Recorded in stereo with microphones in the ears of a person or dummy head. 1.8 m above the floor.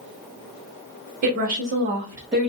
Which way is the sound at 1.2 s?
40° right (ahead or behind).